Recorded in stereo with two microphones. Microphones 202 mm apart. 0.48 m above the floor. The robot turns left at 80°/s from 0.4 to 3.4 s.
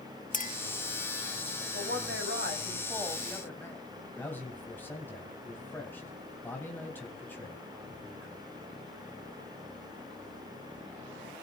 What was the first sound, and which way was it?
A clink, 40° left (ahead or behind).